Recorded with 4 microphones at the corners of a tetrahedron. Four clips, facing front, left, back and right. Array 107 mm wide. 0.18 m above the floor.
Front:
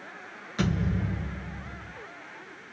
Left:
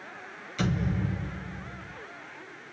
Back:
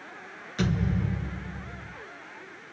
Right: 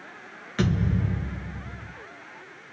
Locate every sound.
0.6 s a thud: 80° right, 6 m